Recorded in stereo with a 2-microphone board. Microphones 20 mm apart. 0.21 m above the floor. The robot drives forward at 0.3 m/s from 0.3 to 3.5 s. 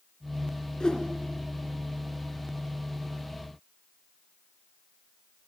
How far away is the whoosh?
About 2.5 m.